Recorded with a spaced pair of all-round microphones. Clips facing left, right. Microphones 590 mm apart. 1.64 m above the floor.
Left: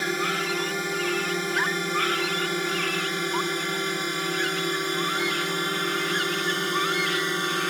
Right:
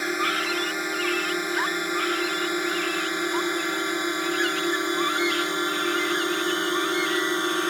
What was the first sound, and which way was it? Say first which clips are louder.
A drone: even; 55° left (ahead or behind).